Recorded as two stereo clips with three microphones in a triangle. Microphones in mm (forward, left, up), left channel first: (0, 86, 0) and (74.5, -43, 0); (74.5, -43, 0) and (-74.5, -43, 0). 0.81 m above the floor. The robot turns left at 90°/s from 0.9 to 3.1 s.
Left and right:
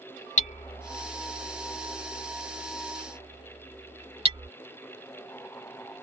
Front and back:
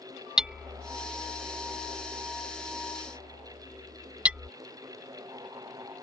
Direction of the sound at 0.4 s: 95° left.